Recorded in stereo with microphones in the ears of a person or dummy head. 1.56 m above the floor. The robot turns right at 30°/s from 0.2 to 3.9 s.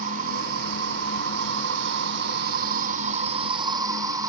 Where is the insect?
140° right; by 4.3 s 25° right.